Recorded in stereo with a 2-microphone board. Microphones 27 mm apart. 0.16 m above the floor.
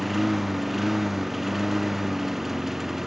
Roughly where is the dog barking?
I don't hear a dog barking.